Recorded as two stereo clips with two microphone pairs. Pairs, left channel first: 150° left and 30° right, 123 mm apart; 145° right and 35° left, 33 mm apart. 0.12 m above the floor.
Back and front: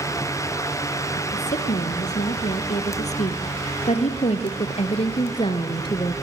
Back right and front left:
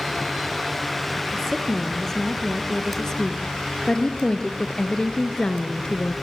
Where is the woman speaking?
135° left, 4 m; by 6.2 s 170° left, 1.6 m.